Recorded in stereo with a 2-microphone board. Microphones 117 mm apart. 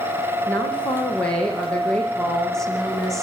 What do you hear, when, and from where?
0.5 s a woman speaking: 10° left (ahead or behind), 8.5 m; by 3.2 s centre (ahead or behind), 10 m